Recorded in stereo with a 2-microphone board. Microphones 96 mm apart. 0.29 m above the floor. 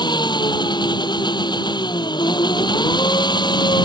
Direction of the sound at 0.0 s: 50° left (ahead or behind).